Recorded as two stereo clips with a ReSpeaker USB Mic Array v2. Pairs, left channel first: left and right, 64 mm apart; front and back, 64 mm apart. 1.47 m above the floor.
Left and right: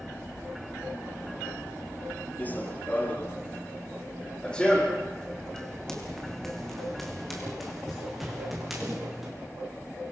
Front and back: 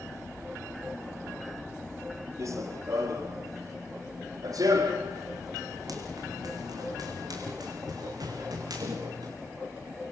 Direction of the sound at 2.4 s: 150° left.